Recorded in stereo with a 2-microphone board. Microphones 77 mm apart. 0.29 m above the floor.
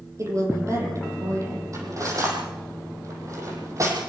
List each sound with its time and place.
0.2 s a woman speaking: 40° right (ahead or behind), 9.5 m
1.7 s cutlery clinking: 45° right (ahead or behind), 6.5 m